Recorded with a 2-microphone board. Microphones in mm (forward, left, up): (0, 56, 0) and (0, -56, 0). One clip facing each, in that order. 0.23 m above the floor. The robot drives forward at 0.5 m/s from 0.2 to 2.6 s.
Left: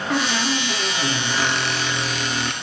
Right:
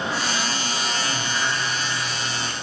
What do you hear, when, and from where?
0.1 s a squeak: 65° left (ahead or behind), 2.5 m; by 2.5 s 70° left (ahead or behind), 2.5 m